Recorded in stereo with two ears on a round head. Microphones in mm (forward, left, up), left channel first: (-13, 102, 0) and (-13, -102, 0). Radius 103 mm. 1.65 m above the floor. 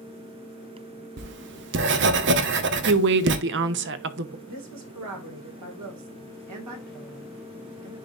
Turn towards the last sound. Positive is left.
turn(degrees=-90)